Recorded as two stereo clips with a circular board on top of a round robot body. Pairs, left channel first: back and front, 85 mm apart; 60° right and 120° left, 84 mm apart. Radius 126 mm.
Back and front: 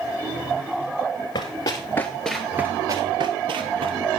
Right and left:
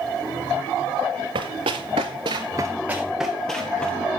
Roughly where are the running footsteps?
Behind left.